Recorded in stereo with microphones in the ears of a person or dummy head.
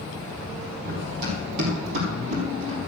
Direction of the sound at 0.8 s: 50° right (ahead or behind).